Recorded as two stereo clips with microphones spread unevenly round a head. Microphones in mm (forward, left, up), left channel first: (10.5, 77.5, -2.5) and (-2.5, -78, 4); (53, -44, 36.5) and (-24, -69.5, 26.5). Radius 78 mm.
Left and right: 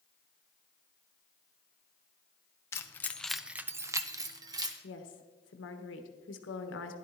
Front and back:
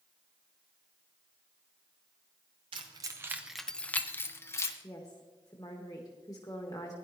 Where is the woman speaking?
85° left, 1.3 m.